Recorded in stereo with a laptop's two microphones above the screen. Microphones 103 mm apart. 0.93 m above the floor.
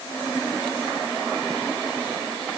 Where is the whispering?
No whispering in this recording.